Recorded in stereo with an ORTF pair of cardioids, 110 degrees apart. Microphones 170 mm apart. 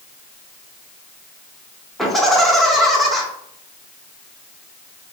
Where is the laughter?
Straight ahead, 1.3 m.